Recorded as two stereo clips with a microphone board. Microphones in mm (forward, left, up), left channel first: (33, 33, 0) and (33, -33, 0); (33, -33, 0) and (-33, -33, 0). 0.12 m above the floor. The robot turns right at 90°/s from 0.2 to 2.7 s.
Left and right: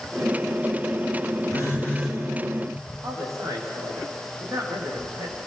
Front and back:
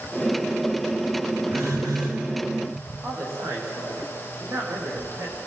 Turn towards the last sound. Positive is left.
turn(degrees=-130)